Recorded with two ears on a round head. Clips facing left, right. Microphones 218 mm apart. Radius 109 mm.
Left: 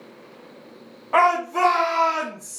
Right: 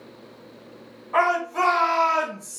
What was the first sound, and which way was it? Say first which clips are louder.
A shout: left 2 dB; 75° left (ahead or behind).